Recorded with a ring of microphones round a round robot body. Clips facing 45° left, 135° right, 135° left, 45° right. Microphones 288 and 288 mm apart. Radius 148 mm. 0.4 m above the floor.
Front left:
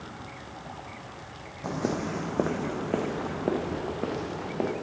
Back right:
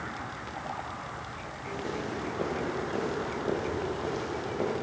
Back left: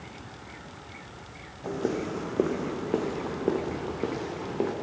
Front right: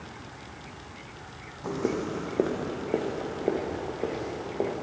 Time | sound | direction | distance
1.6 | footsteps | 30° left | 1.5 m